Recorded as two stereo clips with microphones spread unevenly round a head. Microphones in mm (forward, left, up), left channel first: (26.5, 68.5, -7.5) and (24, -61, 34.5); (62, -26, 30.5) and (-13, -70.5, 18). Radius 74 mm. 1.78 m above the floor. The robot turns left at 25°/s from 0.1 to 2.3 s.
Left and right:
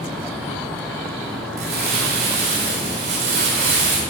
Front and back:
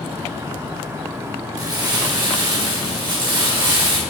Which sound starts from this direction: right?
Crumpling, at 1.6 s.